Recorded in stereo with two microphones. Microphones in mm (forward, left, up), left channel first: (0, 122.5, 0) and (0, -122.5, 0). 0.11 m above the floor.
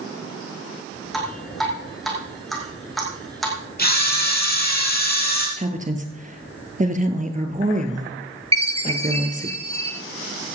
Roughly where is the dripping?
Centre.